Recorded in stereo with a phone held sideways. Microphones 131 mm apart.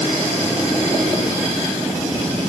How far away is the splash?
I don't hear a splash.